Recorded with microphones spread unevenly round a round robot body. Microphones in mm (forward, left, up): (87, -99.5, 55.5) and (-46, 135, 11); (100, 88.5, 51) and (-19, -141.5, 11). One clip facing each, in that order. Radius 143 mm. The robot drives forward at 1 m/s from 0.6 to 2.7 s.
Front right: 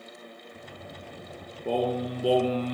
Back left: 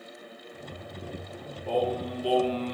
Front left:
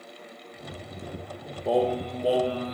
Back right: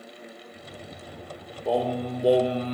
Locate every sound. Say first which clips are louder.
1.6 s singing: front right 1 dB, front left 1 dB; 25° right, 1.6 m; by 2.8 s 55° right, 0.8 m